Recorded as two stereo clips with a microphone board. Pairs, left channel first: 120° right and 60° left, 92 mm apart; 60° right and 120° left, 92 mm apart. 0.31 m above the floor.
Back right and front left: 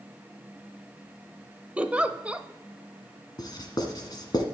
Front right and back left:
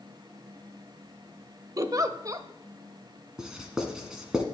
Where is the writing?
160° right, 1.6 m.